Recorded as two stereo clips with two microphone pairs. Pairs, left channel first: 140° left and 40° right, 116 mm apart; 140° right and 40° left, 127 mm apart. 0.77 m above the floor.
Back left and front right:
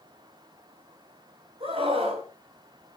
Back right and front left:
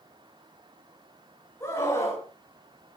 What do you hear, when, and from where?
1.6 s a scream: 75° right, 7 m